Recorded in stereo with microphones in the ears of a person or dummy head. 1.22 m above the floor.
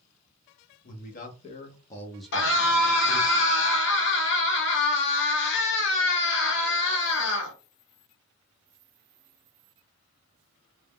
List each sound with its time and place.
0.8 s a man speaking: 45° left (ahead or behind), 1.0 m; by 3.3 s 40° right (ahead or behind), 0.8 m
2.3 s a scream: 60° left (ahead or behind), 1.1 m